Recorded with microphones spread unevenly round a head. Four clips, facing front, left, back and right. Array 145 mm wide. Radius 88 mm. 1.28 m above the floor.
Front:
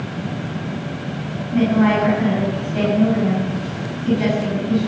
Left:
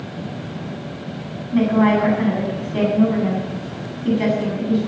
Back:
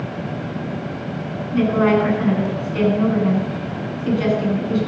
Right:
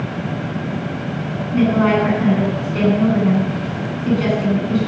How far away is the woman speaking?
About 8.5 m.